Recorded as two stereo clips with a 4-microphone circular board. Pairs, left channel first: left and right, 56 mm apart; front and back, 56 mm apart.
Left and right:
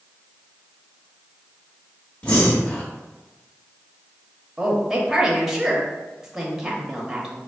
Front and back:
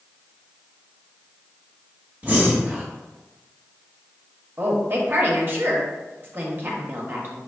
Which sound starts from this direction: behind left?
Breathing, at 2.2 s.